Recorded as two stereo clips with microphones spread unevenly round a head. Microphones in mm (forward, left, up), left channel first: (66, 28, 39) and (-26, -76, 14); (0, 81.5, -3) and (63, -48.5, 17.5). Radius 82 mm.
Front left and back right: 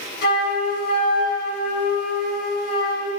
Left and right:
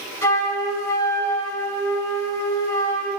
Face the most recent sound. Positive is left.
turn(degrees=50)